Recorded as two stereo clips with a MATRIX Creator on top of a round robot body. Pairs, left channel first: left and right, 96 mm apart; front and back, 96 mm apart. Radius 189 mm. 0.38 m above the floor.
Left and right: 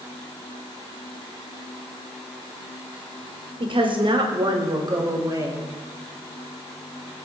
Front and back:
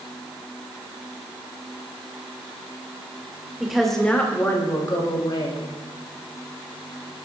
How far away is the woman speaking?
About 2.5 m.